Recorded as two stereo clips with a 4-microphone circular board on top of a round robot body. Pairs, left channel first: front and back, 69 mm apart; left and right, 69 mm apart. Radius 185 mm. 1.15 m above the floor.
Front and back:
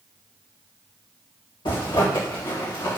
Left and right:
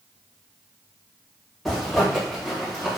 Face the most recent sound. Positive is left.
turn(degrees=5)